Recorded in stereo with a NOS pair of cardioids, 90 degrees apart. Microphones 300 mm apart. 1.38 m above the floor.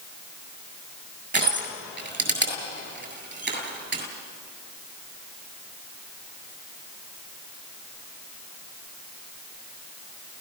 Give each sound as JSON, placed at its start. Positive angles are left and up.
{"t": 1.3, "sound": "crushing", "azimuth_deg": -35, "distance_m": 8.0}